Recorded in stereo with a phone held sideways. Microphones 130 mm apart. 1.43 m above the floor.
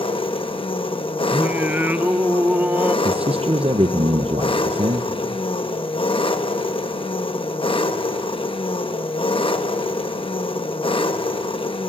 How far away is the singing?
About 0.7 m.